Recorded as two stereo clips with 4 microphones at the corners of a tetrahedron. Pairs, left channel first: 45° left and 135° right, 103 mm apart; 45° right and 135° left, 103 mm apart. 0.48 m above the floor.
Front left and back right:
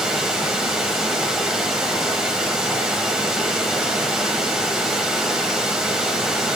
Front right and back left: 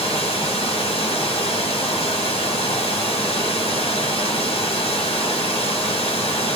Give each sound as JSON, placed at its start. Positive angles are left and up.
{"t": 0.0, "sound": "running water", "azimuth_deg": -50, "distance_m": 1.1}